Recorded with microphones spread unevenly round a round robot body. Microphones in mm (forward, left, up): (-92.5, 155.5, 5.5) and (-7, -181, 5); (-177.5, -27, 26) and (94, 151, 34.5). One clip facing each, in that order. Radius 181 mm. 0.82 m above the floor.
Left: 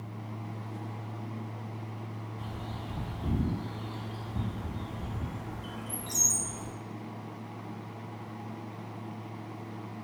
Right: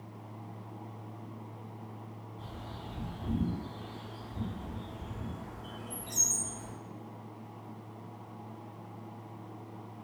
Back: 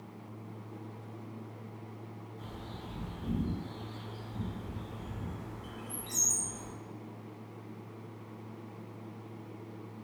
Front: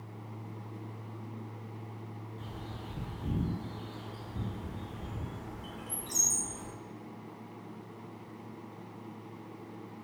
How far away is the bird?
About 1.1 m.